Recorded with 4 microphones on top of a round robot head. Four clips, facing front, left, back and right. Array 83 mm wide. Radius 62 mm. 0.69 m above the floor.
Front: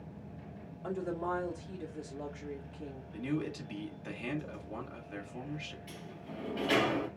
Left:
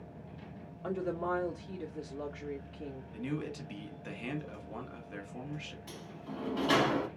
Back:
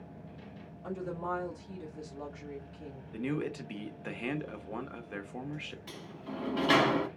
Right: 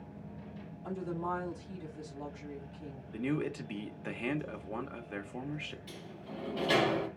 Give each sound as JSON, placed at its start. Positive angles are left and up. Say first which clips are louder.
{"t": 0.8, "sound": "a woman speaking", "louder": "left 3 dB, front 1 dB", "azimuth_deg": 70, "distance_m": 2.0}
{"t": 3.1, "sound": "a man speaking", "louder": "right 5 dB, back 1 dB", "azimuth_deg": -135, "distance_m": 1.4}
{"t": 5.9, "sound": "a sliding door", "louder": "left 1 dB, back 3 dB", "azimuth_deg": 160, "distance_m": 0.9}